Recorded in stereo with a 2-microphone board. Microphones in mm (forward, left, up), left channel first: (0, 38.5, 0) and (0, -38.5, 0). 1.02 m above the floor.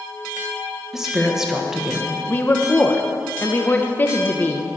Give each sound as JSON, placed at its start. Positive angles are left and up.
{"t": 0.9, "sound": "a woman speaking", "side_deg": -5, "distance_m": 0.8}
{"t": 2.3, "sound": "a woman speaking", "side_deg": 25, "distance_m": 0.7}